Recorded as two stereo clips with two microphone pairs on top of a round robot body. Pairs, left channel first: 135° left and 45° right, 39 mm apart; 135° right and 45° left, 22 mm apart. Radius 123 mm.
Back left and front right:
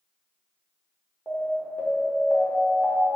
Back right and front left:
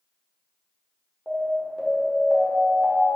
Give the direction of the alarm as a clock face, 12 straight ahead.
7 o'clock.